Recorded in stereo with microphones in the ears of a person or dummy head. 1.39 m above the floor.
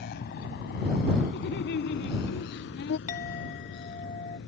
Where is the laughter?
65° left (ahead or behind).